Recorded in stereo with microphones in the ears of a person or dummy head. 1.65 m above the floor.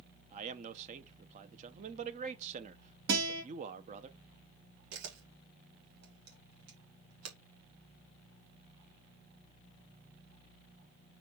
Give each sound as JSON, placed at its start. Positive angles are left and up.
{"t": 0.3, "sound": "a man speaking", "side_deg": -40, "distance_m": 0.9}
{"t": 3.1, "sound": "a guitar", "side_deg": -65, "distance_m": 3.0}
{"t": 4.9, "sound": "a camera shutter", "side_deg": -85, "distance_m": 2.0}